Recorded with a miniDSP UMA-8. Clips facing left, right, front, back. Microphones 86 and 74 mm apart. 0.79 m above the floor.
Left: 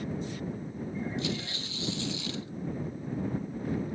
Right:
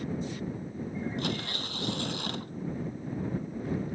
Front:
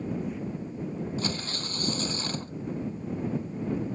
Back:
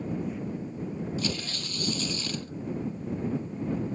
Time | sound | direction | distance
1.2 | tearing paper | 50° right | ?